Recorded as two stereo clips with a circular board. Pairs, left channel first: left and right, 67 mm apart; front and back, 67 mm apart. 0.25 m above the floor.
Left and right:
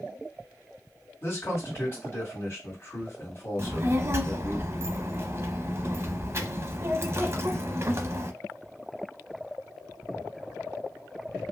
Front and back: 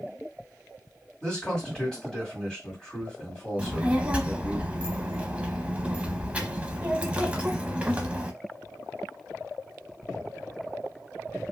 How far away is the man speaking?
About 1.9 m.